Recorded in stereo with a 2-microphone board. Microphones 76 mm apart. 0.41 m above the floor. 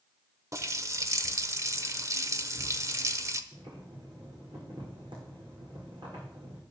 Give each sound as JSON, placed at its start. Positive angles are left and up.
{"t": 0.5, "sound": "a running tap", "side_deg": -40, "distance_m": 0.8}
{"t": 3.5, "sound": "boiling", "side_deg": -75, "distance_m": 6.5}